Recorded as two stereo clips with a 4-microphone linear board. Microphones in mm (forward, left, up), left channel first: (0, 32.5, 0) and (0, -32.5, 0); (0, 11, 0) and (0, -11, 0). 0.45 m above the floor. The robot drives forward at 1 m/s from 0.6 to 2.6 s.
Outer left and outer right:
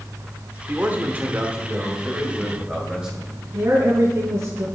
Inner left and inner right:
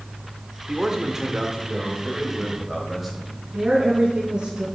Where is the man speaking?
30° right (ahead or behind), 1.1 m; by 3.4 s 15° right (ahead or behind), 2 m.